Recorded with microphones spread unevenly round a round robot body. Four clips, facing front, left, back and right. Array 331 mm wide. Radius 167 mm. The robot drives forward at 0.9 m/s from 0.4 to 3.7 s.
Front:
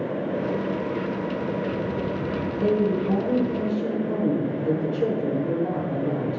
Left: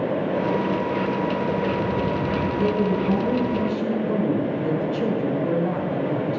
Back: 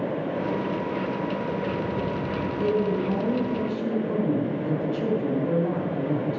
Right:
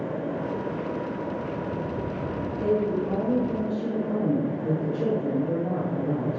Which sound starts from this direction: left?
A woman speaking, at 2.6 s.